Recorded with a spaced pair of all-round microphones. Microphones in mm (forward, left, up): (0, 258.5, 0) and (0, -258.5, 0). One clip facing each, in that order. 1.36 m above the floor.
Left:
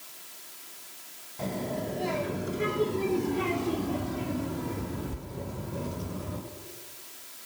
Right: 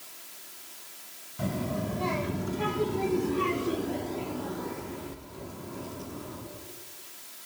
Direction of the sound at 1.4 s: 30° right (ahead or behind).